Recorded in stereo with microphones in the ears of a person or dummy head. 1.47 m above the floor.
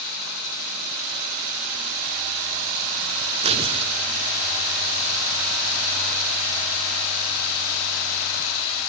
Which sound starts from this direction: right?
Tearing paper, at 3.4 s.